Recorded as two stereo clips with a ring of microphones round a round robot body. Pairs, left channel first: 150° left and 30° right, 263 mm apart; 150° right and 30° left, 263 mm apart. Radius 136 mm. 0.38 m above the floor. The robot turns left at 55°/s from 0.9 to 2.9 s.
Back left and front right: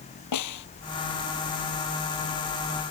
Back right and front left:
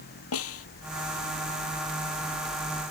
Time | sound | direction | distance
0.3 | a snare drum | 170° left | ?